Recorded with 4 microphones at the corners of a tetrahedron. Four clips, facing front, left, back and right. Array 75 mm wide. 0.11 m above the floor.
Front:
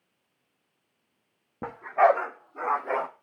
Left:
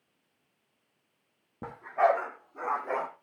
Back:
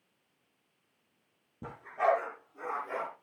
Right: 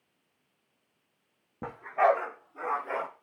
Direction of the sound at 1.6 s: Straight ahead.